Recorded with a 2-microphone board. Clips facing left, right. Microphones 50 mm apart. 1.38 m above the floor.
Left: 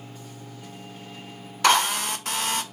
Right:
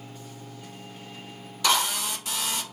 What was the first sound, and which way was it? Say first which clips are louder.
A drill: left 5 dB; 50° left (ahead or behind).